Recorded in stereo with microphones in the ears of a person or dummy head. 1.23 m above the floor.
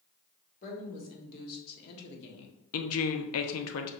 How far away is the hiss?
I don't hear a hiss.